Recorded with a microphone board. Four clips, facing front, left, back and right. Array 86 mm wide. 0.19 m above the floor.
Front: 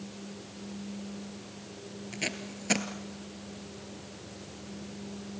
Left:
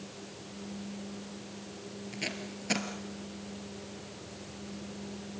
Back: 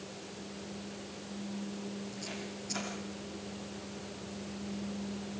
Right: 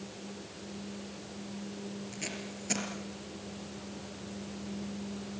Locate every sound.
2.1 s tape being pulled: 20° left, 2.5 m